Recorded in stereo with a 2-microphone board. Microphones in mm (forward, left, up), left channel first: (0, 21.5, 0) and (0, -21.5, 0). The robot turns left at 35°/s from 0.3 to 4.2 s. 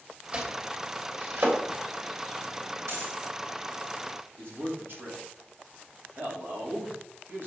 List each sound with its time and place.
0.3 s chopping: 15° right (ahead or behind), 3.5 m; by 1.6 s 60° right (ahead or behind), 3.5 m
2.9 s a dropped coin: 85° right, 5.5 m; by 3.2 s 75° right (ahead or behind), 5.5 m
4.4 s a man speaking: 60° right (ahead or behind), 3.5 m